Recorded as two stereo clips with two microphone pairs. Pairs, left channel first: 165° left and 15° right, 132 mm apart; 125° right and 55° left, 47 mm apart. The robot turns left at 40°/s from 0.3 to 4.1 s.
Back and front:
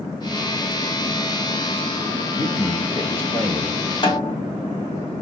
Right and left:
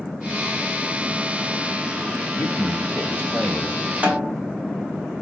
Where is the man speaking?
140° right, 1.3 m; by 3.8 s 160° left, 1.3 m.